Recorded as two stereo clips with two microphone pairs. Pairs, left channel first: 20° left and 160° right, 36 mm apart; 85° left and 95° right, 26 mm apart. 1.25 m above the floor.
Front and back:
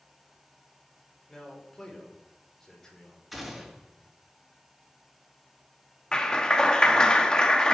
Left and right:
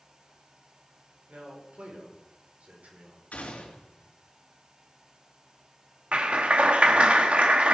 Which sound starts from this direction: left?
A gunshot, at 3.3 s.